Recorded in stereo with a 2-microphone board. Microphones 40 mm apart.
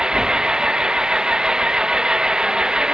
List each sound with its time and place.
0.0 s an engine running: 15° right (ahead or behind)